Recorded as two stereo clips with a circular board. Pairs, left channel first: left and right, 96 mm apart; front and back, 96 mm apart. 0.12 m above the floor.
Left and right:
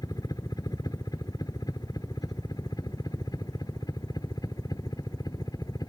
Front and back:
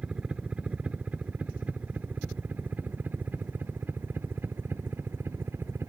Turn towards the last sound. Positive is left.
turn(degrees=120)